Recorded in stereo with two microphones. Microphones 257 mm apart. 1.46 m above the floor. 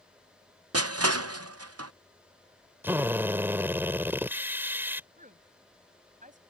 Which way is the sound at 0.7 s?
65° right (ahead or behind).